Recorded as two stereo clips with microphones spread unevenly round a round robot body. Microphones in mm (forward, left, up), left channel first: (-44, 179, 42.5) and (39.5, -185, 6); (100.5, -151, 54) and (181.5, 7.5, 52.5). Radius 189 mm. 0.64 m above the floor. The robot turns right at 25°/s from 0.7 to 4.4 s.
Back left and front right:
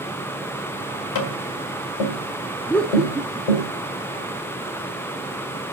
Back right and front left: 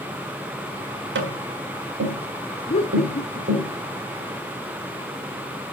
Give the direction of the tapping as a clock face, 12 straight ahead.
10 o'clock.